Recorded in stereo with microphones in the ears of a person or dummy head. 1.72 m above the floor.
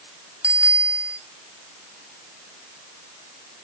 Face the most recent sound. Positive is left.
turn(degrees=-5)  # may be behind; listen again after turning